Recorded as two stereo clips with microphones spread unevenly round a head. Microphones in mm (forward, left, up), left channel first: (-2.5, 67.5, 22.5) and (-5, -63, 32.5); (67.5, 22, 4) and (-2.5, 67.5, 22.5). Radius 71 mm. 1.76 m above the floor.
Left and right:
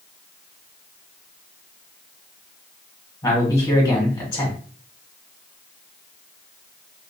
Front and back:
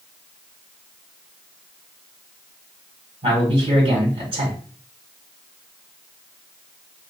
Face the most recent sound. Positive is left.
turn(degrees=155)